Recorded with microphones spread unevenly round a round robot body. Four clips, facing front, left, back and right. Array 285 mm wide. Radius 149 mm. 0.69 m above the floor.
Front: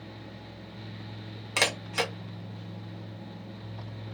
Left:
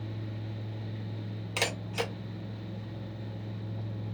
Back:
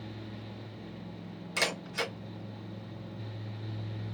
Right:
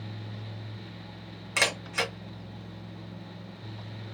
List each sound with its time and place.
1.6 s a camera shutter: 5° right, 0.9 m